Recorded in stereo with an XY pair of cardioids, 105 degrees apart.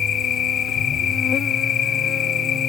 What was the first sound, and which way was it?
An insect, 60° left.